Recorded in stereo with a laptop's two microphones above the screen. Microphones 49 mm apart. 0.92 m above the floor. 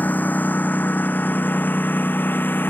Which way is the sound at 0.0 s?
40° left (ahead or behind).